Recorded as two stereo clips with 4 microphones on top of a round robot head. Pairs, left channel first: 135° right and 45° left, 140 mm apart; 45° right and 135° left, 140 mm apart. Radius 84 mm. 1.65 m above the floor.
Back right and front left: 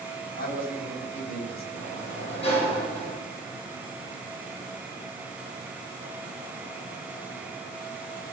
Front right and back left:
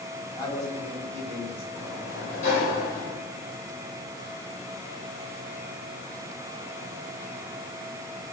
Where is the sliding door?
85° right, 7.5 m.